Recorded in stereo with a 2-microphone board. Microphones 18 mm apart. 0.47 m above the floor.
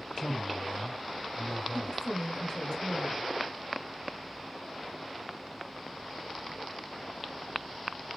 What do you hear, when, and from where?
0.2 s a man speaking: 55° left (ahead or behind), 3 m
1.7 s a woman speaking: 40° left (ahead or behind), 2.0 m